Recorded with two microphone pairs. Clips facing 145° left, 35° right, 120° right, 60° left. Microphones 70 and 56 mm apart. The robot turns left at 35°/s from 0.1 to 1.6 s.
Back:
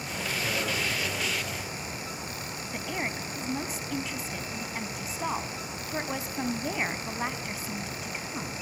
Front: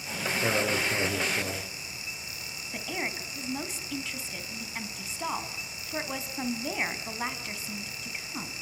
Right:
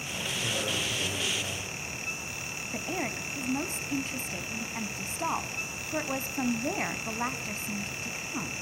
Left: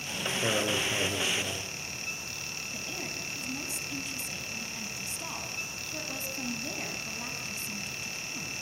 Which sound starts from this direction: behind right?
A woman speaking, at 2.7 s.